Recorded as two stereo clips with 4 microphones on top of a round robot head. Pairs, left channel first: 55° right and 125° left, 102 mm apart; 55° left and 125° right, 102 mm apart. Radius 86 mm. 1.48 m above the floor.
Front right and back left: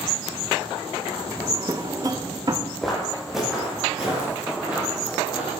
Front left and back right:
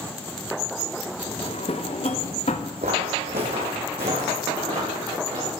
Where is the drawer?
75° left, 0.7 m.